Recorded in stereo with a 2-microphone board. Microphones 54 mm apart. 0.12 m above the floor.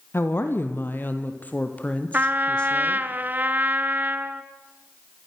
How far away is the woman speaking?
About 3.5 m.